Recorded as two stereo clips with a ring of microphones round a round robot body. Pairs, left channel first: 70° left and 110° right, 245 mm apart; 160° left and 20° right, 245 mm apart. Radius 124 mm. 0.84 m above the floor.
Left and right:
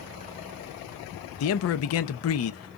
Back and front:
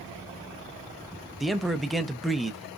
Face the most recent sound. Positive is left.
turn(degrees=70)